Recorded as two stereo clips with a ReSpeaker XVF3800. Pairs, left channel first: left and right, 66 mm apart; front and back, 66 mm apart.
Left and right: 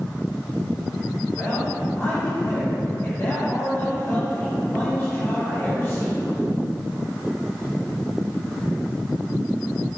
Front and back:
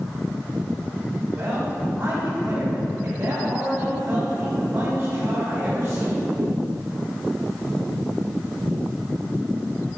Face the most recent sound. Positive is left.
turn(degrees=135)